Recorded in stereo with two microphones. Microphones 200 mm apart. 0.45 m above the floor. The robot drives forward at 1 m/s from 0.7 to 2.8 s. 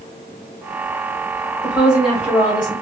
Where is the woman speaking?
5° right (ahead or behind), 1.7 m.